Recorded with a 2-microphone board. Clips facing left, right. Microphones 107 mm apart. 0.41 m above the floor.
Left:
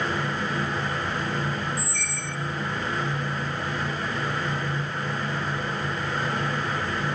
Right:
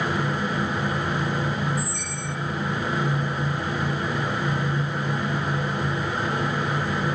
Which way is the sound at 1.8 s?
15° right (ahead or behind).